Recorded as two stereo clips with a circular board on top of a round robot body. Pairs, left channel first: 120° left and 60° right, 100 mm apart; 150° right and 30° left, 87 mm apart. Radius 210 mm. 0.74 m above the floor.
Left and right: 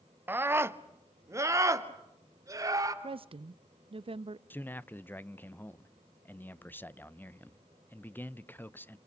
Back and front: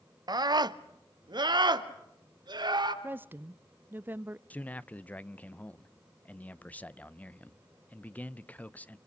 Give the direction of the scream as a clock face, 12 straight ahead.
12 o'clock.